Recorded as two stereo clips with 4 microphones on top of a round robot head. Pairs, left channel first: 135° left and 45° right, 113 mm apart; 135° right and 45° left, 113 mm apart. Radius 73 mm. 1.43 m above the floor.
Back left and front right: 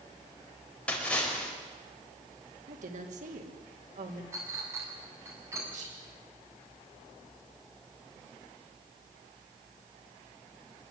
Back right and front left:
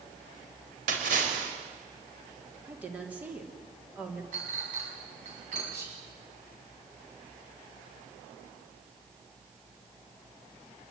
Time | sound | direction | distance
0.9 | a splash | 55° left | 4.5 m
2.7 | a woman speaking | 35° right | 3.5 m
4.3 | a clink | 25° left | 7 m
5.7 | whispering | 25° right | 8.5 m